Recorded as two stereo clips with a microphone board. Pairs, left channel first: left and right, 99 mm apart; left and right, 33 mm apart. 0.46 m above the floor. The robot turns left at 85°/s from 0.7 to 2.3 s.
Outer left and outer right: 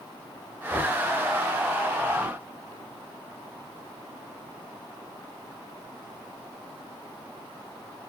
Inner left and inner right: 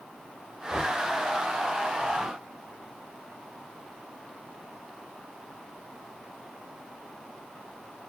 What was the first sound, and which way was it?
Knocking, 5° right (ahead or behind).